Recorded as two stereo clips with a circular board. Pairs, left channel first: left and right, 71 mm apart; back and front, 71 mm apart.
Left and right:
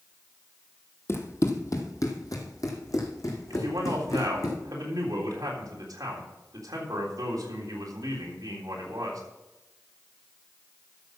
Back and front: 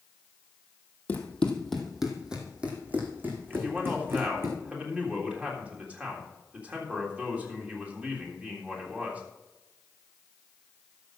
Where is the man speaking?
70° right, 3.5 m.